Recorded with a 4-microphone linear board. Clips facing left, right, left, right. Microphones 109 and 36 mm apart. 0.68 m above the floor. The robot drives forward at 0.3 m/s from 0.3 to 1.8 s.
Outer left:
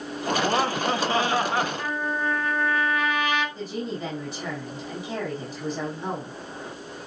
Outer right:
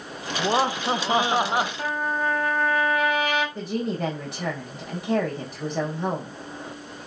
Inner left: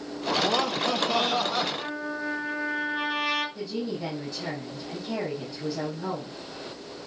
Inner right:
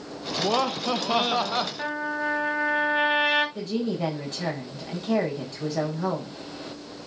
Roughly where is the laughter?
Centre.